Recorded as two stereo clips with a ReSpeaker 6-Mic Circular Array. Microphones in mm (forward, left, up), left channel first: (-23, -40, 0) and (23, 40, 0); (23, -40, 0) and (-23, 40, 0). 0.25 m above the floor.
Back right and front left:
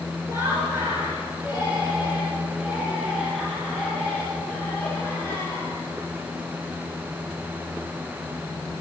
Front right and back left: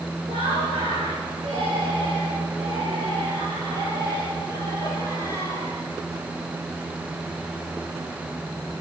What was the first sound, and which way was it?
Laughter, 120° left.